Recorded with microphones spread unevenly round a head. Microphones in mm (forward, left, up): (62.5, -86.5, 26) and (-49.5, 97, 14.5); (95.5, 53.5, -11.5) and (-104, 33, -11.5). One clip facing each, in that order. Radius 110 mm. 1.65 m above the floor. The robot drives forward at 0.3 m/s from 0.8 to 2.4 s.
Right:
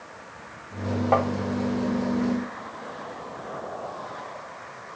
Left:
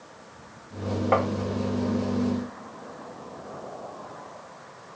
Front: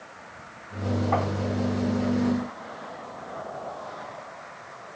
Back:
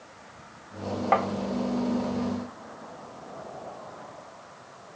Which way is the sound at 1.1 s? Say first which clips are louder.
Even, back 4 dB; 175° right.